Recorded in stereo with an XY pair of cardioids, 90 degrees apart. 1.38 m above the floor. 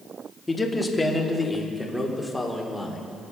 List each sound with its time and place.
0.5 s a man speaking: 20° left, 2.5 m; by 3.0 s 5° left, 4 m